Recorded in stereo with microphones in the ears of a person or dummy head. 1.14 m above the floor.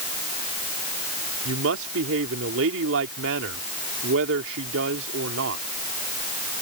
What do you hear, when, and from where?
1.4 s a woman speaking: 80° right